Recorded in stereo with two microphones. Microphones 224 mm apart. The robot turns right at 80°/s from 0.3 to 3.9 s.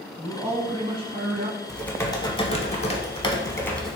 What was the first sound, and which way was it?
A man speaking, 5° right (ahead or behind).